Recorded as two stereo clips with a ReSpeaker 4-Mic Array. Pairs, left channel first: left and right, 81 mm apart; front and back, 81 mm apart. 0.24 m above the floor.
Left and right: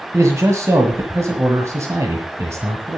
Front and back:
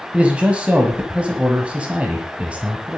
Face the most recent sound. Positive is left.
turn(degrees=-115)